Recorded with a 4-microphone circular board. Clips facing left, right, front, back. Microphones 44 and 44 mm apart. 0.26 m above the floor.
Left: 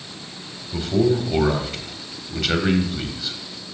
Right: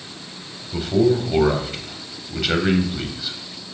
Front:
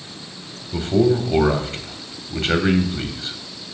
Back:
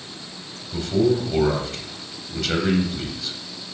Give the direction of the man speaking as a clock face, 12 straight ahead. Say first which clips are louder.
Right 2 dB, front 2 dB; 12 o'clock.